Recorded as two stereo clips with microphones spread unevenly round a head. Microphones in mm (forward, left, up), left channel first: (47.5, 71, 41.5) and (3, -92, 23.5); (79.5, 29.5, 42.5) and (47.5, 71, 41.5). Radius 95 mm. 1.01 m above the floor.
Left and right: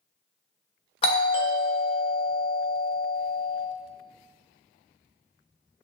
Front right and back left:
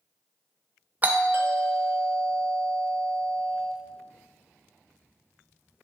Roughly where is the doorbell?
Behind left.